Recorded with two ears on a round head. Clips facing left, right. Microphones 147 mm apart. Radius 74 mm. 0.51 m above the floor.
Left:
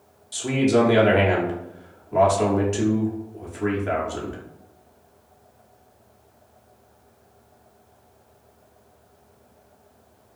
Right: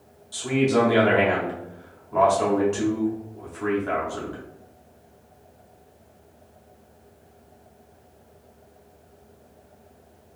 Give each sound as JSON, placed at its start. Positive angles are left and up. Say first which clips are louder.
{"t": 0.3, "sound": "a man speaking", "louder": "left 2 dB", "side_deg": 25, "distance_m": 0.7}